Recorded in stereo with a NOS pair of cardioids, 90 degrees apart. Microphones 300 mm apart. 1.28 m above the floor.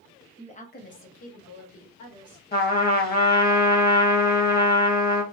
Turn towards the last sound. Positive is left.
turn(degrees=30)